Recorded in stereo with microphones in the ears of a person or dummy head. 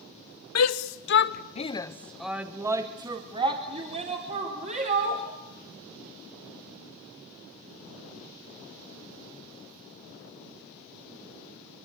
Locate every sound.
0.6 s a shout: 75° left (ahead or behind), 1.2 m; by 5.2 s 40° right (ahead or behind), 3.5 m